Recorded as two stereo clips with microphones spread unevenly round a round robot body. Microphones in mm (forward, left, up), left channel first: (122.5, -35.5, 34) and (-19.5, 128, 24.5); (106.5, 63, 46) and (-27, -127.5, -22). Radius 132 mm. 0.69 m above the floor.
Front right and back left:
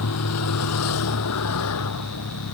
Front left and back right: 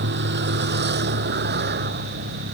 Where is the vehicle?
85° right; by 2.6 s 80° right.